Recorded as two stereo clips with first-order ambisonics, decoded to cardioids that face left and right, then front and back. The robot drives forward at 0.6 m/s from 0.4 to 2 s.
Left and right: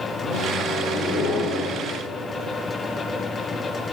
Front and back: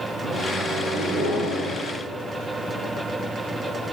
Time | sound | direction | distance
0.2 | a microwave | 120° left | 0.9 m